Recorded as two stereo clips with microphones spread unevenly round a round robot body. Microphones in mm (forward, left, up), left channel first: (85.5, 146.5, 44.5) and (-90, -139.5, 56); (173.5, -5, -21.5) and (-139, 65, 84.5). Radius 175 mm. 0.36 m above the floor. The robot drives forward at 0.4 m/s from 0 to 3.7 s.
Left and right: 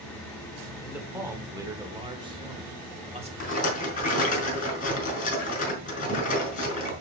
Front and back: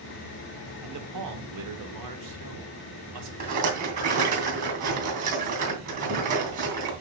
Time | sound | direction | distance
0.8 | a man speaking | 155° left | 1.5 m
3.4 | a rattle | 125° left | 3 m